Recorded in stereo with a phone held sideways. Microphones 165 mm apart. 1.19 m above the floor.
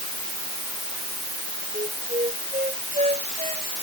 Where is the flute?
40° right (ahead or behind).